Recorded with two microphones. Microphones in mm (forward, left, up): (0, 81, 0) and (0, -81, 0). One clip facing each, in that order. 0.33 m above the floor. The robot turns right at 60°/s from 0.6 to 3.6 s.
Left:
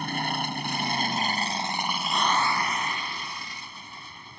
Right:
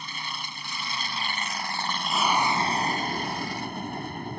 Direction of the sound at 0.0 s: 90° left.